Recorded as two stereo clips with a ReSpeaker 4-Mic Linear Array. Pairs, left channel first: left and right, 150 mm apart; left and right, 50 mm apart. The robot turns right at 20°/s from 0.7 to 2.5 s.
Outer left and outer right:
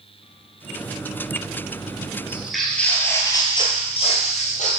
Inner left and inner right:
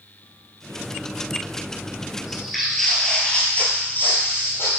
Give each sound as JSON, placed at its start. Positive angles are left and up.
{"t": 2.3, "sound": "footsteps", "side_deg": -10, "distance_m": 1.2}